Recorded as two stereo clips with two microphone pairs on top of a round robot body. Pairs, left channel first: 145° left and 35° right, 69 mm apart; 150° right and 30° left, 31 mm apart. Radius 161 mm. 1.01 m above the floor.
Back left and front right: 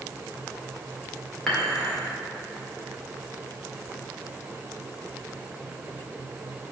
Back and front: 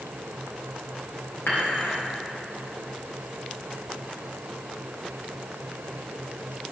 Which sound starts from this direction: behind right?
Dishes clattering, at 1.5 s.